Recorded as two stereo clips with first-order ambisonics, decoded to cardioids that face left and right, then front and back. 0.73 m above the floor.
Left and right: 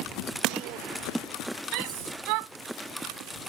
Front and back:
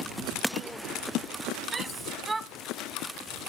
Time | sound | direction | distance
1.7 | a shout | 100° right | ?